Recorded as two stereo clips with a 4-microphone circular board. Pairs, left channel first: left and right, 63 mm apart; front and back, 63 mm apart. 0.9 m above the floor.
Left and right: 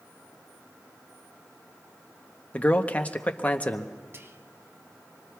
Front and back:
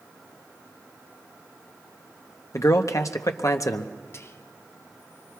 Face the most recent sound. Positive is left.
turn(degrees=-40)